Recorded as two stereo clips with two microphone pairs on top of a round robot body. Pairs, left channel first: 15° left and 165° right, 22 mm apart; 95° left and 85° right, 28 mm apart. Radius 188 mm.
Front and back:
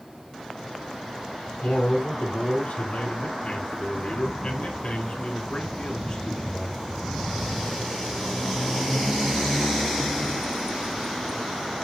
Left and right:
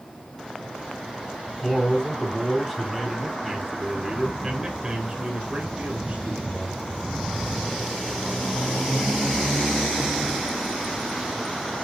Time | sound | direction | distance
1.6 | a man speaking | 25° left | 4 m